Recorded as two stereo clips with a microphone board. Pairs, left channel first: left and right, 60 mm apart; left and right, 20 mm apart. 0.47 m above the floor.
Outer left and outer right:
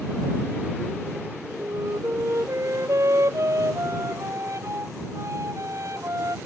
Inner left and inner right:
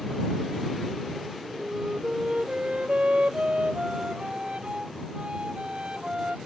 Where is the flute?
55° right (ahead or behind).